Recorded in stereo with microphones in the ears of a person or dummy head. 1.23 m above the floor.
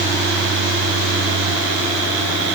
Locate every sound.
Only background noise.